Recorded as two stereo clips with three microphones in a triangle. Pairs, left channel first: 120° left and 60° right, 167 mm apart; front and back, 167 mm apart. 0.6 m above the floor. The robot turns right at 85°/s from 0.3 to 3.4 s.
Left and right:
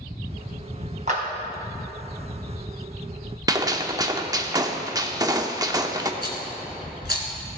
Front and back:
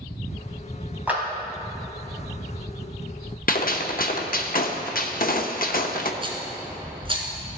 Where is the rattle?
125° left, 1.9 m.